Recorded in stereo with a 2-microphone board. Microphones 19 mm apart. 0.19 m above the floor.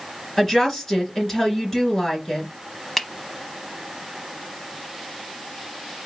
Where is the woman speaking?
10° left (ahead or behind), 3 m.